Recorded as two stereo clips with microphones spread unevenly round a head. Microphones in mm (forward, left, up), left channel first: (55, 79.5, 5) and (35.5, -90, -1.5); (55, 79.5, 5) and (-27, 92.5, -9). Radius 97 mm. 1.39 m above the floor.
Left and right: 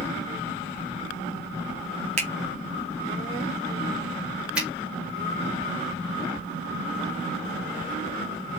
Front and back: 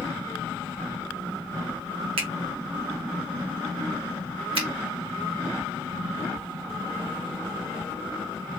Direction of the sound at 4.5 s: Straight behind.